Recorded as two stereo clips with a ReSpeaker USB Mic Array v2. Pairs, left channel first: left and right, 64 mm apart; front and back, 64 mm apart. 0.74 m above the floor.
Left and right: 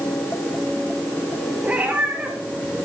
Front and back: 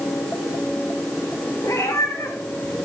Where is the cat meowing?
25° right, 3 m.